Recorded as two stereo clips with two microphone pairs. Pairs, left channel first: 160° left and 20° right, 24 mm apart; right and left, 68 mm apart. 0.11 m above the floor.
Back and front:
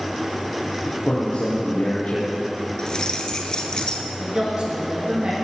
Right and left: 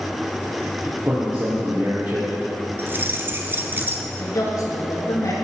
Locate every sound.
0.8 s a man speaking: 145° left, 3 m
2.8 s keys jangling: 120° left, 1.2 m
4.2 s a woman speaking: 65° right, 5 m